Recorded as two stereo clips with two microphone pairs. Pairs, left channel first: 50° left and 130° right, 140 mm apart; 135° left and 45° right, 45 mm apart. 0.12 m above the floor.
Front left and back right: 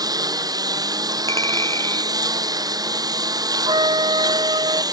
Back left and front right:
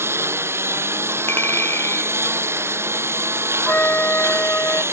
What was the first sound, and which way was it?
A lawn mower, 65° right.